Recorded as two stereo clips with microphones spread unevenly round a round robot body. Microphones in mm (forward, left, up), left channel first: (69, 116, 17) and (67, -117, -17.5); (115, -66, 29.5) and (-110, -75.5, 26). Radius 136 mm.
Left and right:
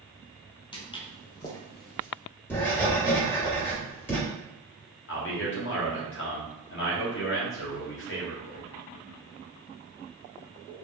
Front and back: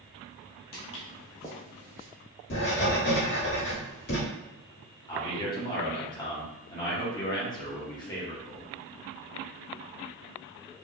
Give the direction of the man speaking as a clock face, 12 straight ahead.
10 o'clock.